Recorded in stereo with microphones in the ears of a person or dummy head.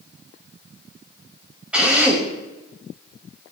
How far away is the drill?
About 2.5 m.